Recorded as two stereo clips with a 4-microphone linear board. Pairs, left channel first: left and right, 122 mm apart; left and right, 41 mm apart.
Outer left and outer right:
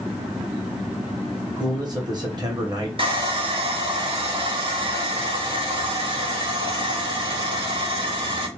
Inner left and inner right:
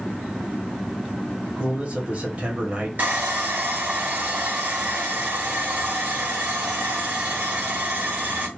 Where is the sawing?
45° right (ahead or behind), 1.3 m.